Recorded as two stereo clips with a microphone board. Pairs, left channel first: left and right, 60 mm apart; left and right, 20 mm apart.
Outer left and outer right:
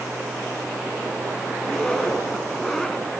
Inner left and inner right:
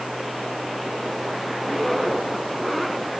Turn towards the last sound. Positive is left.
turn(degrees=5)  # may be behind; listen again after turning